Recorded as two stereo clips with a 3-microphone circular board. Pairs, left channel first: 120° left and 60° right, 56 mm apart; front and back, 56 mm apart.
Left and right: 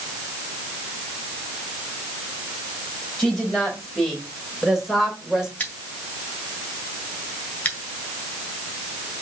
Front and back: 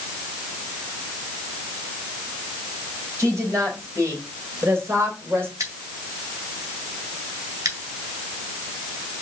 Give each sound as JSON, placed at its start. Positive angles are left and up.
{"t": 3.2, "sound": "a woman speaking", "azimuth_deg": -155, "distance_m": 4.0}
{"t": 5.6, "sound": "scissors", "azimuth_deg": 180, "distance_m": 1.9}